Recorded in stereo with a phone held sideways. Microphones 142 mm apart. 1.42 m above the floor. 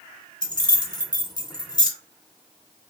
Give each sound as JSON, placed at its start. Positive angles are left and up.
{"t": 0.4, "sound": "keys jangling", "side_deg": 30, "distance_m": 0.6}